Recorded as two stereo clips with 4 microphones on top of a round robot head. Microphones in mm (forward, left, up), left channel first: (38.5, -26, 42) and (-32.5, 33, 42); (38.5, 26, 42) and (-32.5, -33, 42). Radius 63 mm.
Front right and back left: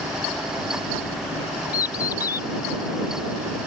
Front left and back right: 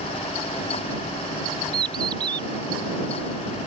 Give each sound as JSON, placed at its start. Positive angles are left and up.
{"t": 1.7, "sound": "a bird", "azimuth_deg": -95}